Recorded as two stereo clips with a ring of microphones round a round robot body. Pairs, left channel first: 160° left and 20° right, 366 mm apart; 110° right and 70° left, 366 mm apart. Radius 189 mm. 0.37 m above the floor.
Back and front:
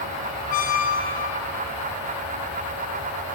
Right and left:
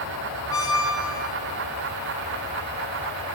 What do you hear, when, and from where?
0.5 s a squeak: 175° right, 0.7 m